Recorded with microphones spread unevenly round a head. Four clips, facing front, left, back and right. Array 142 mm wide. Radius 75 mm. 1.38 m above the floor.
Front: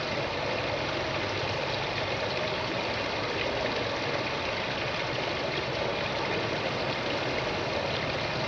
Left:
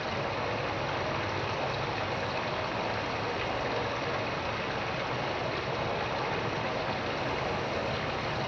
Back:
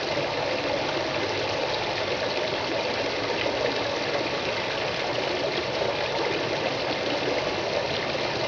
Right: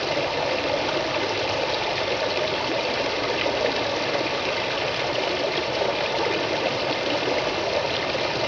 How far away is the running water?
About 1.5 m.